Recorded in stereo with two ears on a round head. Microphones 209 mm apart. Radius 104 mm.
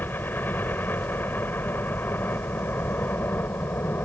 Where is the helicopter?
10° left (ahead or behind).